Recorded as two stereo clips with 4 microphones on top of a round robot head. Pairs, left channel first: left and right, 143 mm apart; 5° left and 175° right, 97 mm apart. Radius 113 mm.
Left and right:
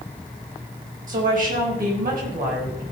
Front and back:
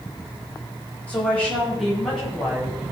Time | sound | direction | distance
1.1 | a woman speaking | 75° right | 5 m